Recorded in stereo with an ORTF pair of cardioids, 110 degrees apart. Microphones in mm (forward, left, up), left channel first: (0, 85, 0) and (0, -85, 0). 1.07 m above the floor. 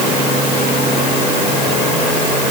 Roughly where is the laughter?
No laughter in this recording.